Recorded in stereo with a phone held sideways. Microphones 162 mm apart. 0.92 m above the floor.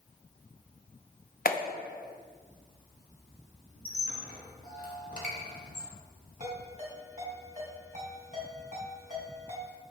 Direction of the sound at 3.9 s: 65° left (ahead or behind).